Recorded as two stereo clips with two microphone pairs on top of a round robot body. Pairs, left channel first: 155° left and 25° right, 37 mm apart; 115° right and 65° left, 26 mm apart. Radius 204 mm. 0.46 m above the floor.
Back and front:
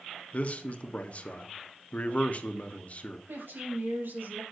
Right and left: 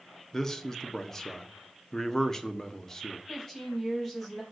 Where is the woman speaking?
40° right, 4 m.